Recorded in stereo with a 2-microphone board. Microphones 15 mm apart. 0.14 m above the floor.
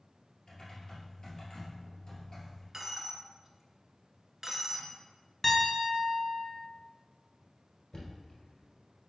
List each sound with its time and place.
0.5 s typing on a keyboard: 40° left (ahead or behind), 1.8 m
2.7 s a dropped coin: 30° right (ahead or behind), 0.6 m
5.4 s a piano: 20° left (ahead or behind), 1.1 m
7.9 s knocking: 50° left (ahead or behind), 1.6 m